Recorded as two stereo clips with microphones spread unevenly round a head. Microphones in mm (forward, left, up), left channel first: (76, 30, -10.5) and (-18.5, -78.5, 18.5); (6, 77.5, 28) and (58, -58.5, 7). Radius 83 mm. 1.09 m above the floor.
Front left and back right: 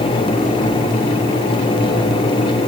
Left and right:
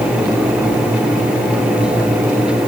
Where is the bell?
No bell in this recording.